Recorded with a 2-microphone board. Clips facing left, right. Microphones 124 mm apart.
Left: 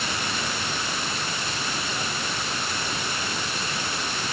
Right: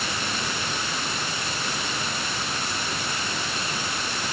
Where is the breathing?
I don't hear breathing.